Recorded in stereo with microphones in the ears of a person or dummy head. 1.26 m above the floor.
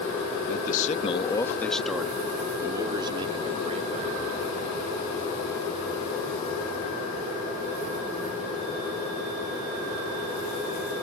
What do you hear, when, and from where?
0.5 s a man speaking: 60° left (ahead or behind); by 4.3 s 35° right (ahead or behind)